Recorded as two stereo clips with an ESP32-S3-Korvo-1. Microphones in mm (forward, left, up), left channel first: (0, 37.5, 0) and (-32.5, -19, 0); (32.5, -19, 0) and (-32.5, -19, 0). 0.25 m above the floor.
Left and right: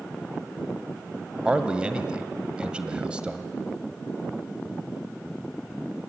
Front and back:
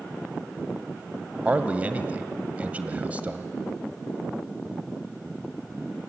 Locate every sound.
1.4 s a man speaking: 170° right, 1.1 m